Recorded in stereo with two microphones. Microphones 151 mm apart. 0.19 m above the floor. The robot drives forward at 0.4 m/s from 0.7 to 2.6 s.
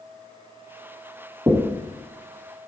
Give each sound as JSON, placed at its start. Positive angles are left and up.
{"t": 1.5, "sound": "knocking", "side_deg": -20, "distance_m": 0.7}